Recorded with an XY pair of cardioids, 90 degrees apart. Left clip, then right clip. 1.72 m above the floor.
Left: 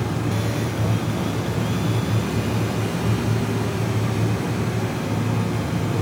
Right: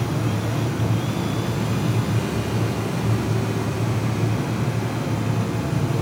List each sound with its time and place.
0.0 s a fan: 5° left, 1.2 m